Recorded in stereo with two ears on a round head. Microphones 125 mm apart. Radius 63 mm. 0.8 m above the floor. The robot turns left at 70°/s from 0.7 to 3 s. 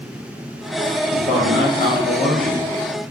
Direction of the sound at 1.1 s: 165° left.